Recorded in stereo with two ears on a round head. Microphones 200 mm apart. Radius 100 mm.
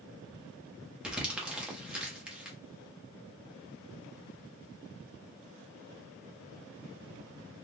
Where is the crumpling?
5° right (ahead or behind), 0.9 m.